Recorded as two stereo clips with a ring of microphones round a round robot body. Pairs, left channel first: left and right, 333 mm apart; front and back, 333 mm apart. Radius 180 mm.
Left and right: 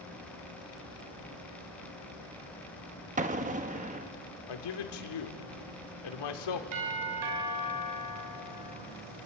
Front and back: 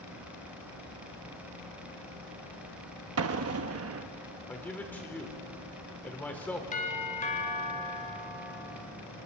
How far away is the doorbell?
About 3.5 m.